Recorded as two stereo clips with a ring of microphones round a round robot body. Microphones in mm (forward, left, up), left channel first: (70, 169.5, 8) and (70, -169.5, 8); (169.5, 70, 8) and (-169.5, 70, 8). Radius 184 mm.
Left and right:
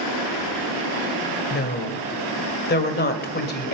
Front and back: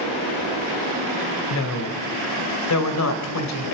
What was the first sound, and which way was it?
A woman speaking, 30° left.